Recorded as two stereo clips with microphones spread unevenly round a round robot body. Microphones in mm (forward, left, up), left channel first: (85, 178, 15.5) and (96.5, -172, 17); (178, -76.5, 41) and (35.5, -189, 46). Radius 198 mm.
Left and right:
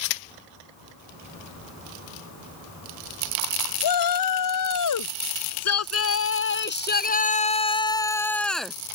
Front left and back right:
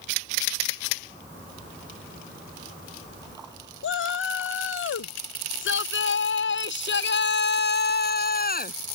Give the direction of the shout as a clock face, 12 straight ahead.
10 o'clock.